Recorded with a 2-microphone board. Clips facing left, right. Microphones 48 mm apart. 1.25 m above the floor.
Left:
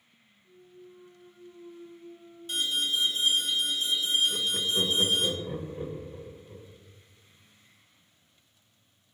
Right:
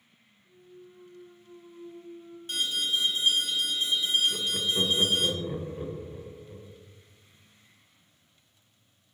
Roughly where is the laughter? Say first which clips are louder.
Even; centre.